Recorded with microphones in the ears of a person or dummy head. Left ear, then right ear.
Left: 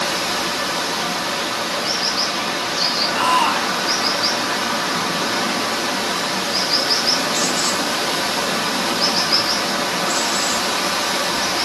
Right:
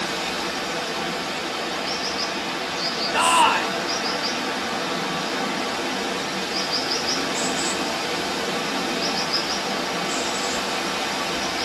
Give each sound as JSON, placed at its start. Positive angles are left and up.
{"t": 0.0, "sound": "running water", "side_deg": 35, "distance_m": 0.9}
{"t": 3.1, "sound": "a shout", "side_deg": -15, "distance_m": 0.6}